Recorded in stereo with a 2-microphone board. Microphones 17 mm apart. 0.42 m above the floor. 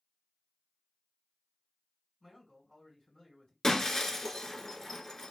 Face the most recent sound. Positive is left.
turn(degrees=30)  # may be behind; listen again after turning